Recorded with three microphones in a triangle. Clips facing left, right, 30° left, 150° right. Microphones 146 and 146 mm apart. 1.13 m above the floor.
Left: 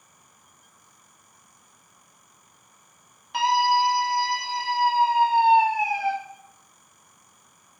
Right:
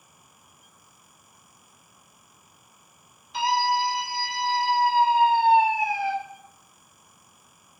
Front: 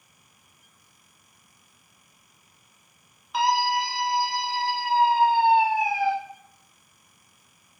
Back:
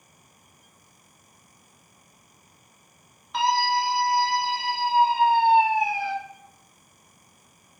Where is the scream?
115° left, 0.9 m; by 6.1 s 45° left, 1.8 m.